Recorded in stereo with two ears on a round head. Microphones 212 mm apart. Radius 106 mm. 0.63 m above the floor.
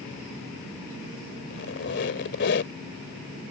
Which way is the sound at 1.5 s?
50° left (ahead or behind).